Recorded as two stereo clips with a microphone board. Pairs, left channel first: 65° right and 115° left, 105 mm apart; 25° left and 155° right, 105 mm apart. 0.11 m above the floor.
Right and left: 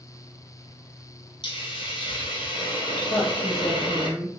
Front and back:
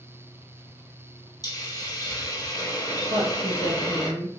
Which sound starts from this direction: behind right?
A woman speaking, at 3.1 s.